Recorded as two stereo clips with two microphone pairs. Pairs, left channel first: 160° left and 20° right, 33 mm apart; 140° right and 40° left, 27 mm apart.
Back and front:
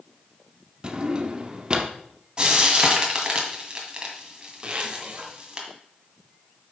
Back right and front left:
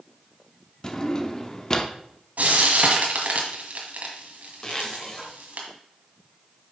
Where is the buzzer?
I don't hear a buzzer.